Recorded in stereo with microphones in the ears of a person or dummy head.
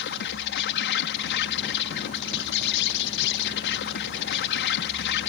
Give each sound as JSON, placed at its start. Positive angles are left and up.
{"t": 0.0, "sound": "an insect", "side_deg": 65}